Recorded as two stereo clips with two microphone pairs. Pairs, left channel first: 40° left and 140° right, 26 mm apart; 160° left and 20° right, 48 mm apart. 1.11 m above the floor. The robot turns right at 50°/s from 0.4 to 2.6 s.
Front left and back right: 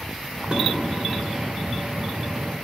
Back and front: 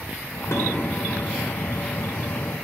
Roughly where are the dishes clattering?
Behind.